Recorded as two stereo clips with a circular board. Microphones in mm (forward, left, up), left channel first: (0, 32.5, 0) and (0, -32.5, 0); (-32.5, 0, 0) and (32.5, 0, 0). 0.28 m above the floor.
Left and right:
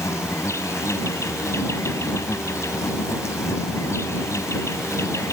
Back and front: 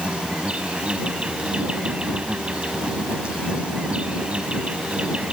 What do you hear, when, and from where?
0.0 s an insect: 70° left